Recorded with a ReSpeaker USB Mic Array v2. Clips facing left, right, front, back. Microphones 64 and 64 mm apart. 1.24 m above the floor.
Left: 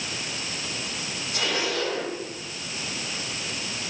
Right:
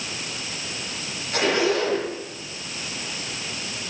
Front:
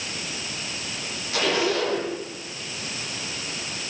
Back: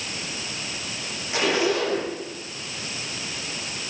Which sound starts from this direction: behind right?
A zipper, at 1.3 s.